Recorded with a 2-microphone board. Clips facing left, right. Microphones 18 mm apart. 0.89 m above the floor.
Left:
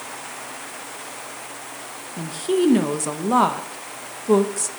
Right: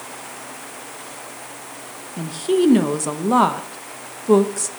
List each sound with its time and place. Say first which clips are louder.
2.2 s a woman speaking: right 2 dB; 15° right (ahead or behind), 0.6 m